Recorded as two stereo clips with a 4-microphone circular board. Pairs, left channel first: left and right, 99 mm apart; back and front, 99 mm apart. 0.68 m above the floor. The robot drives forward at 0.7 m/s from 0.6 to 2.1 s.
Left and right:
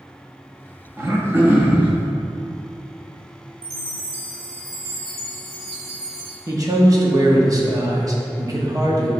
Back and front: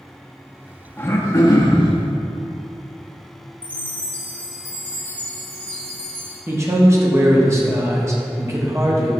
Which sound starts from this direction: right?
A chime, at 3.6 s.